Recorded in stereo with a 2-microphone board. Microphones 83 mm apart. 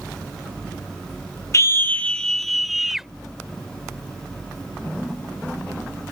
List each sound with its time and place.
1.5 s a scream: 40° left (ahead or behind); by 3.1 s 5° right (ahead or behind)